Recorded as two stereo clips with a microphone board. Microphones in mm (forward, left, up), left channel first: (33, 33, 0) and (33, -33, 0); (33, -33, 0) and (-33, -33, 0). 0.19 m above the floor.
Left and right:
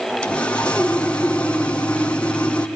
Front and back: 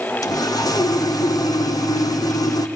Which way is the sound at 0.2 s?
15° left.